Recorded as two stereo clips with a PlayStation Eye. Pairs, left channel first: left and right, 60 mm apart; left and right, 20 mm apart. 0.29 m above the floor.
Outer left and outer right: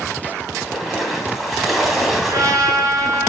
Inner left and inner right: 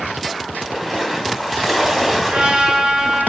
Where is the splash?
5° right (ahead or behind), 2 m.